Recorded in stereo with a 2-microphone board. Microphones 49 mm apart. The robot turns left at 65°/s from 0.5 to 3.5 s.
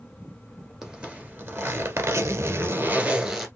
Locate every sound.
0.8 s a zipper: 5° right, 1.3 m; by 3.5 s straight behind, 1.3 m